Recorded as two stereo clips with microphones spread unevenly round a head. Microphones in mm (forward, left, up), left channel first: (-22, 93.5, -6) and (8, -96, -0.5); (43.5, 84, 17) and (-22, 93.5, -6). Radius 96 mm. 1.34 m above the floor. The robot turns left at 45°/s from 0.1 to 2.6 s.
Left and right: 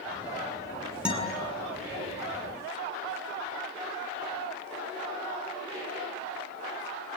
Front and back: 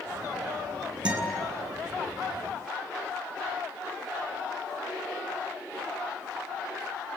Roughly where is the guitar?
Behind.